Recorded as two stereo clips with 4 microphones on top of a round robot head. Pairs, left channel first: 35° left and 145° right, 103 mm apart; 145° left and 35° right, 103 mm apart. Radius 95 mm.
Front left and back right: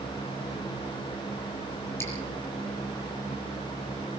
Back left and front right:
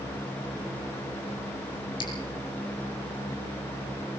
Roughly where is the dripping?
Left.